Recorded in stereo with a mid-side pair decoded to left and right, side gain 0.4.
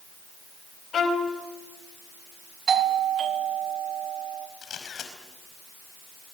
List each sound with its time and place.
0.9 s a violin: 60° left, 4 m
2.7 s a doorbell: 65° right, 2 m
4.6 s a camera shutter: 60° left, 4.5 m